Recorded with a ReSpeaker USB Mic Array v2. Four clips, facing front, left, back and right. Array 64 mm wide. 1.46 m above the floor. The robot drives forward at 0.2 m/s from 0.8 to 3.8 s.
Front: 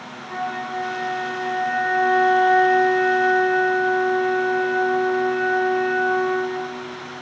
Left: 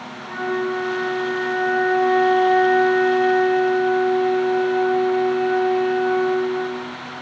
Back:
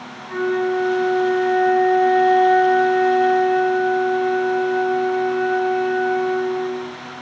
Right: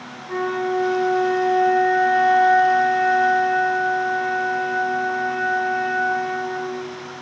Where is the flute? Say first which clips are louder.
Right 1 dB, back 7 dB; 95° left, 1.2 m; by 7.0 s 120° left, 1.4 m.